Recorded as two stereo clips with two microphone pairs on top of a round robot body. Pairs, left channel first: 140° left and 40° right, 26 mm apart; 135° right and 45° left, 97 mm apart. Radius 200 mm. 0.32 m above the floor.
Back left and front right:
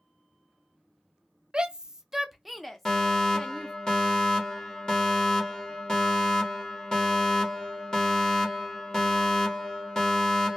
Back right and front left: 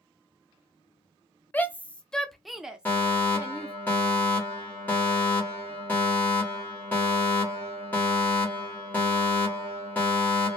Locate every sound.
1.5 s a shout: 70° right, 0.9 m; by 3.7 s 105° left, 1.1 m
2.9 s a fire alarm: 170° left, 2.0 m